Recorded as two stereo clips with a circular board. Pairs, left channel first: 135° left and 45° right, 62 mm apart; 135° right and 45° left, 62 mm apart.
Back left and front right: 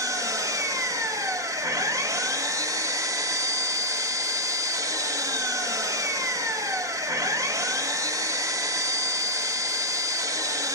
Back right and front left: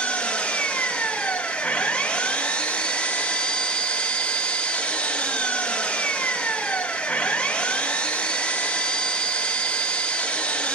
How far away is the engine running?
About 1.0 m.